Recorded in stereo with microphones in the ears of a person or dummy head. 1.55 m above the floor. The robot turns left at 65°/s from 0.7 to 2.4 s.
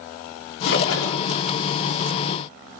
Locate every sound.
0.7 s a splash: 130° left, 4 m; by 1.3 s 85° left, 4 m